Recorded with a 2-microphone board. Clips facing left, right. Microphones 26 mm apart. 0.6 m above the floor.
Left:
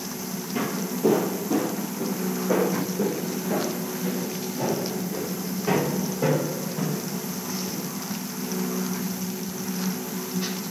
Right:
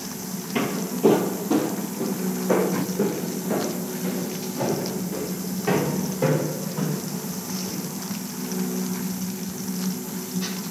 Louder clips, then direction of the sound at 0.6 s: Right 3 dB; 50° right (ahead or behind).